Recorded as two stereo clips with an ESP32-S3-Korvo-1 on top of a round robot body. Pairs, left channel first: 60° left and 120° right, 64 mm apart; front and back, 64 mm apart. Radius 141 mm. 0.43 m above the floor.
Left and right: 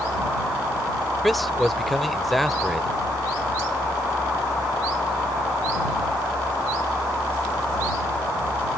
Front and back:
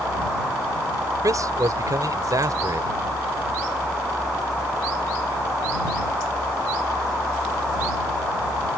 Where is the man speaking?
150° left.